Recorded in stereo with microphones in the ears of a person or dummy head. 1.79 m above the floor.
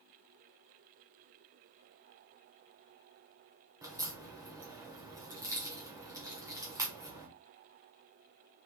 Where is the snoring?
No snoring in this recording.